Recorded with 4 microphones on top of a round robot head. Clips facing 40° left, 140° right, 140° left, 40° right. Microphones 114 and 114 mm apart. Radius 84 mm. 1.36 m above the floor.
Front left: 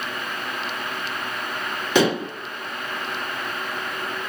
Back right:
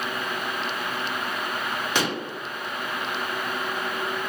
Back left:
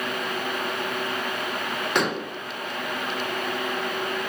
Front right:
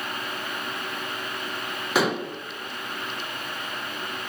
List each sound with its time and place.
1.9 s dishes clattering: 45° left, 0.8 m